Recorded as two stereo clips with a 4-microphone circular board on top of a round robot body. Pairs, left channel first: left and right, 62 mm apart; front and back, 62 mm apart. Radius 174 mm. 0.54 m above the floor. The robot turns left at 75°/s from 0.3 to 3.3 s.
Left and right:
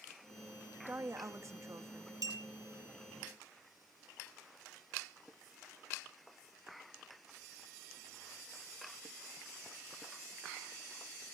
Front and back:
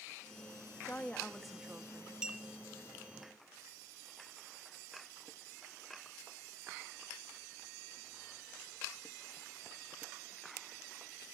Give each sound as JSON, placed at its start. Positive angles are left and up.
{"t": 0.9, "sound": "a woman speaking", "azimuth_deg": -50, "distance_m": 1.4}
{"t": 2.2, "sound": "a clink", "azimuth_deg": -105, "distance_m": 1.3}